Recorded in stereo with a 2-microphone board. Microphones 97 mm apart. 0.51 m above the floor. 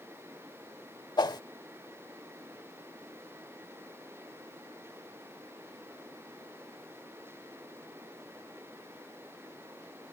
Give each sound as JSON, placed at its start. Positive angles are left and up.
{"t": 1.2, "sound": "a whoosh", "side_deg": 50}